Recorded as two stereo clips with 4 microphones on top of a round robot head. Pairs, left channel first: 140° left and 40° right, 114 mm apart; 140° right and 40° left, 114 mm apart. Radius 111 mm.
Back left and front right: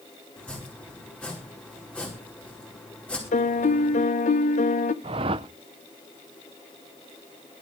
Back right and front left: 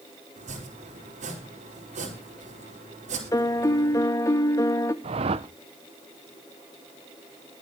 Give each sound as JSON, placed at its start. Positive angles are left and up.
{"t": 0.4, "sound": "chopping", "azimuth_deg": 60, "distance_m": 4.5}
{"t": 3.3, "sound": "a piano", "azimuth_deg": 155, "distance_m": 0.9}
{"t": 5.0, "sound": "a whoosh", "azimuth_deg": 5, "distance_m": 0.6}